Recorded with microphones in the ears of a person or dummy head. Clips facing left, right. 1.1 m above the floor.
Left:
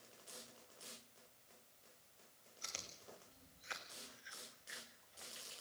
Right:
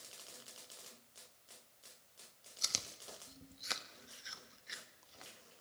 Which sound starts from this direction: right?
Chewing, at 2.6 s.